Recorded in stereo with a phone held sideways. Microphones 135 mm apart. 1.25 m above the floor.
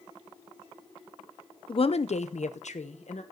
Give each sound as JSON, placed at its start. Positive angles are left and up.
{"t": 1.7, "sound": "a woman speaking", "side_deg": 40, "distance_m": 0.6}